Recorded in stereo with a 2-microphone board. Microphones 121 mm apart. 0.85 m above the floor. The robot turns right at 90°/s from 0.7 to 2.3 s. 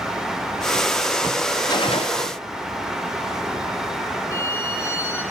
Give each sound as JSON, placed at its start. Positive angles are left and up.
{"t": 1.7, "sound": "a gunshot", "azimuth_deg": 35, "distance_m": 1.5}
{"t": 4.3, "sound": "a violin", "side_deg": 20, "distance_m": 5.5}